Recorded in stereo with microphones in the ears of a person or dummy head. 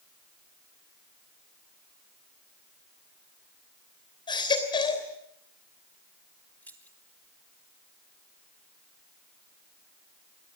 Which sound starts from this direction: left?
A baby crying, at 4.3 s.